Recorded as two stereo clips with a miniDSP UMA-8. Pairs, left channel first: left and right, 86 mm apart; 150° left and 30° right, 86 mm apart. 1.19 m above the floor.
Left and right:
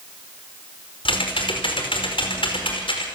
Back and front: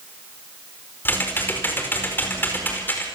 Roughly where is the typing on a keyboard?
Left.